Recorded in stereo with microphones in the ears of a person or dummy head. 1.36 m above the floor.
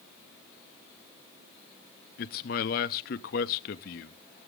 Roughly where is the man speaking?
Left.